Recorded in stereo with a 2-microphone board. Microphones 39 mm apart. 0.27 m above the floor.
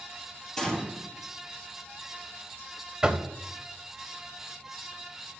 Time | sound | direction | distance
0.6 | a gunshot | 15° left (ahead or behind) | 1.8 m
3.0 | knocking | 20° right (ahead or behind) | 0.6 m